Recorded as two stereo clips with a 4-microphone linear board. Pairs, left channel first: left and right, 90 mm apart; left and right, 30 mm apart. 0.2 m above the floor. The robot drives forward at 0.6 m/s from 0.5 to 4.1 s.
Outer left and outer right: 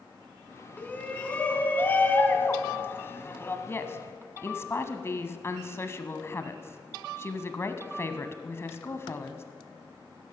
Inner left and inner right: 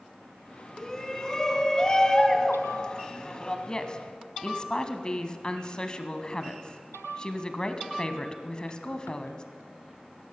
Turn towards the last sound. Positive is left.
turn(degrees=30)  # may be behind; listen again after turning